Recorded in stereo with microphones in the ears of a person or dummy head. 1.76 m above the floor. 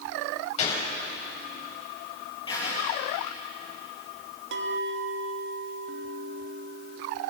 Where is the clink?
70° right (ahead or behind), 2 m.